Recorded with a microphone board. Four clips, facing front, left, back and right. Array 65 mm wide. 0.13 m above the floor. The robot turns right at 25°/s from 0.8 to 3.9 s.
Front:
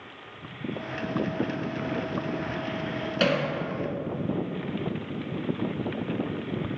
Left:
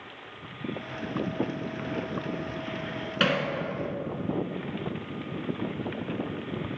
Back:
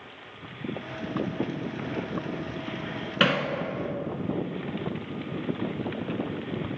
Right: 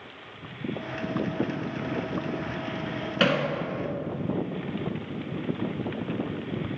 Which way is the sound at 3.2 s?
175° right.